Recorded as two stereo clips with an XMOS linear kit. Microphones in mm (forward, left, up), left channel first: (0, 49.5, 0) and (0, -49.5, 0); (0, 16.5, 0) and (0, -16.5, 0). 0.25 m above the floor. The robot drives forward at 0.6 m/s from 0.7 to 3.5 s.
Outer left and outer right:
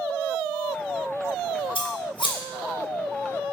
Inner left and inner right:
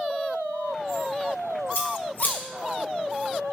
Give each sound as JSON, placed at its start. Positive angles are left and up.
{"t": 1.8, "sound": "scissors", "side_deg": 65, "distance_m": 2.0}